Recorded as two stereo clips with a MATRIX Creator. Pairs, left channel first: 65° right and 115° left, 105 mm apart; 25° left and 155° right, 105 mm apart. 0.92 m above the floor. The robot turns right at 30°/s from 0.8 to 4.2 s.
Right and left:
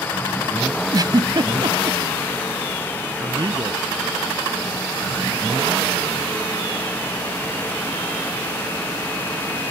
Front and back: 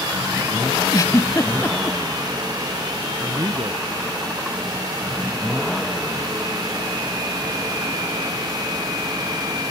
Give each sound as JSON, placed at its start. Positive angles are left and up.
{"t": 0.9, "sound": "a giggle", "azimuth_deg": 70}
{"t": 3.2, "sound": "a man speaking", "azimuth_deg": 145}